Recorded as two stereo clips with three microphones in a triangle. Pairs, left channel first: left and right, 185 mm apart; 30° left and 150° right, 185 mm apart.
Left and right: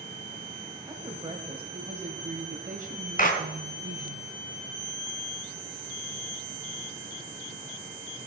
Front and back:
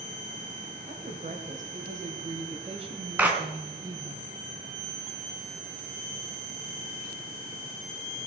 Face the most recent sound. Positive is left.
turn(degrees=130)